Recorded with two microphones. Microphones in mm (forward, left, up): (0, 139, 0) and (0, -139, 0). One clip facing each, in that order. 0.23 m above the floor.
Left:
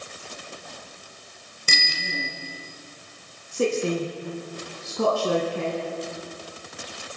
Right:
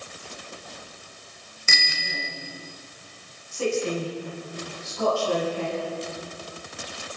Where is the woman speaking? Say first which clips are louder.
Left 2 dB; 65° left (ahead or behind), 4.5 m.